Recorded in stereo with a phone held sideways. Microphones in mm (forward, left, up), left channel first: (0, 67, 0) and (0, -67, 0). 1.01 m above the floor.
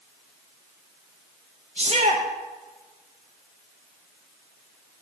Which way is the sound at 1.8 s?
50° right (ahead or behind).